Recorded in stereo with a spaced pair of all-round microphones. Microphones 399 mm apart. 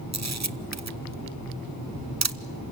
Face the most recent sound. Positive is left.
turn(degrees=-40)  # may be behind; listen again after turning